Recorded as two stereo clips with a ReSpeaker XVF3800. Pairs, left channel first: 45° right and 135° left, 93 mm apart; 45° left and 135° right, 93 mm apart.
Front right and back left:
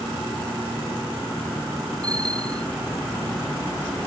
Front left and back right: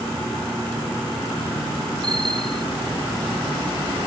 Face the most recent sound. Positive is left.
turn(degrees=-175)